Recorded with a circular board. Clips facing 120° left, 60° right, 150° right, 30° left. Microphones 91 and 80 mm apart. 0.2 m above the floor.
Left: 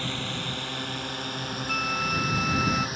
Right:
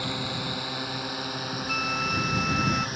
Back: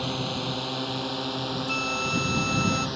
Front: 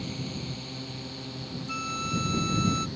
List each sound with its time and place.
0.0 s a drone: 140° right; by 3.0 s 150° right
1.7 s a flute: 150° right